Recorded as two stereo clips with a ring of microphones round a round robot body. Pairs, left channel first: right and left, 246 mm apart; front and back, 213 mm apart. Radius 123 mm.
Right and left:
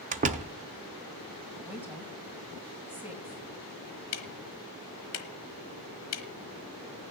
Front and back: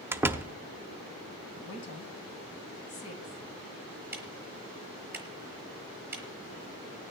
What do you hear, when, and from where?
0.1 s a door slam: 110° left, 0.6 m
1.6 s a woman speaking: 10° left, 2.5 m
4.1 s ticking: 100° right, 1.1 m